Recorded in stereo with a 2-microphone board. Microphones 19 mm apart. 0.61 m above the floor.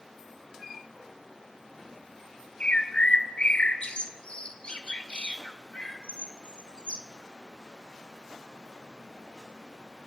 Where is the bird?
65° left (ahead or behind), 1.8 m.